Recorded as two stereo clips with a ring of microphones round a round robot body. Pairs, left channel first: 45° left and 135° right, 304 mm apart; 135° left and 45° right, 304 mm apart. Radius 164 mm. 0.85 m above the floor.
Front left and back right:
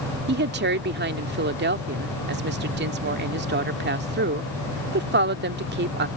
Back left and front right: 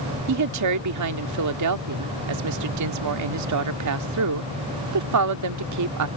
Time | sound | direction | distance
0.3 | a woman speaking | 80° right | ?